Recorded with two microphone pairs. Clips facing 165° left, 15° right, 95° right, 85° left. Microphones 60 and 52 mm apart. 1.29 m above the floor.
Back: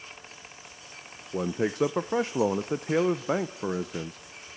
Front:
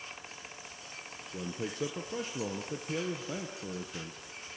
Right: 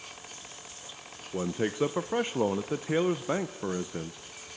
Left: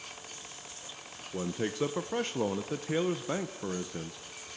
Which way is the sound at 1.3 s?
170° right.